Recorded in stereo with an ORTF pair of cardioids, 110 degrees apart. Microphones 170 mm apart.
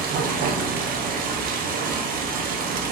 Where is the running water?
65° right, 0.7 m.